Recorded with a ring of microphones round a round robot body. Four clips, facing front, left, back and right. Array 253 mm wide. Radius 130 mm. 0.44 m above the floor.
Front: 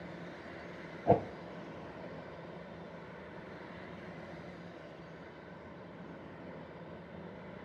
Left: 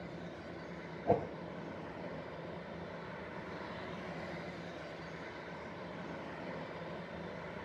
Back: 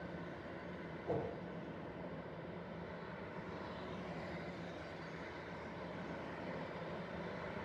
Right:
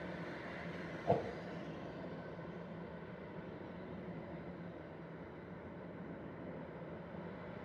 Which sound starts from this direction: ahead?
A whoosh, at 1.1 s.